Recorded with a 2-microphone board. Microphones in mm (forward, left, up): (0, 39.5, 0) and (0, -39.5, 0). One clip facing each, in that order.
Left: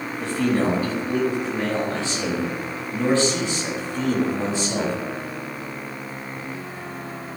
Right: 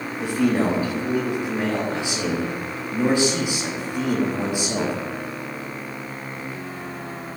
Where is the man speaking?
15° right (ahead or behind), 3.5 m.